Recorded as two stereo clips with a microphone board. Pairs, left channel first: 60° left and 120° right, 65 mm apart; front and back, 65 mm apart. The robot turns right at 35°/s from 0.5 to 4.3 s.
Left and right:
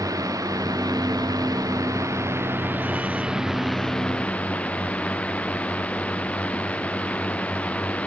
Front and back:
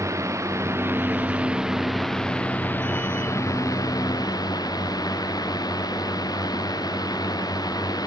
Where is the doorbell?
No doorbell in this recording.